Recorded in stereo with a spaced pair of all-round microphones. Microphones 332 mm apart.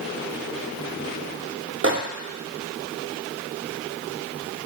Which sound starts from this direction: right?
A microwave, at 1.8 s.